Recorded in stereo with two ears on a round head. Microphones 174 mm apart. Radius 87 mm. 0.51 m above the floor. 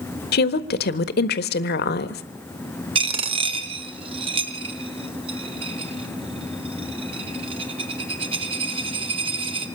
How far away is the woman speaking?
About 1.5 m.